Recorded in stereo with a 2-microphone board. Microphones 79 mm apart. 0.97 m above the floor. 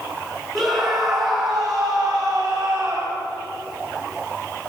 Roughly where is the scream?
Centre.